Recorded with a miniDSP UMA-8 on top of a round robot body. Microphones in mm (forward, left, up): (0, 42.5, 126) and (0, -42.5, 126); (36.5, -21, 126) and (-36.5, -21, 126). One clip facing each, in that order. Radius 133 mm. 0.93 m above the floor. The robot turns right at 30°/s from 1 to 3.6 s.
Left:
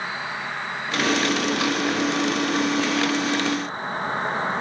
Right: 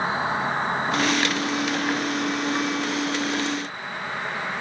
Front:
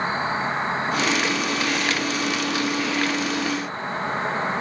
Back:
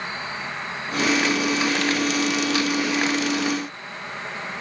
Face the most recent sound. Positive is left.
turn(degrees=40)